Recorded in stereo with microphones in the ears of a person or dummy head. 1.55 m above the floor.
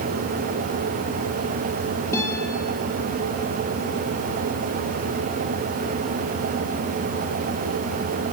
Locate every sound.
2.1 s a guitar: 15° left (ahead or behind), 9 m